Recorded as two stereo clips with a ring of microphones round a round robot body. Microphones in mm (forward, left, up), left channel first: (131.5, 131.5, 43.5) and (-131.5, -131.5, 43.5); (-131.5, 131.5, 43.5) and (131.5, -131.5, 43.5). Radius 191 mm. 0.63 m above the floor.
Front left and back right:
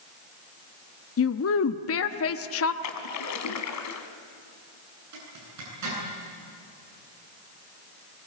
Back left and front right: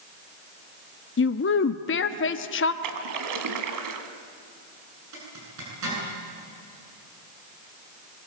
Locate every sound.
1.2 s a woman speaking: 85° left, 0.8 m
2.8 s a splash: 5° right, 1.9 m
5.1 s a zipper: 90° right, 9 m